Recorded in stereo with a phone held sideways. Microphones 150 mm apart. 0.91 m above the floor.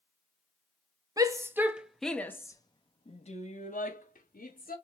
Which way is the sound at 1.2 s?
25° right (ahead or behind).